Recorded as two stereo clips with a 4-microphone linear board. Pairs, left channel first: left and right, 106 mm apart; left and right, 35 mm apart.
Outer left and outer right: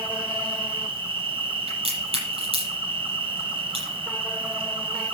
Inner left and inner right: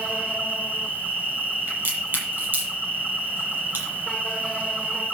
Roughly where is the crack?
Right.